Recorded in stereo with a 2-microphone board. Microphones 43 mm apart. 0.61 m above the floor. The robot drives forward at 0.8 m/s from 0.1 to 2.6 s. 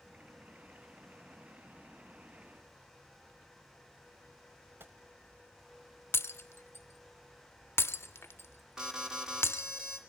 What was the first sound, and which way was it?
A gunshot, 55° right (ahead or behind).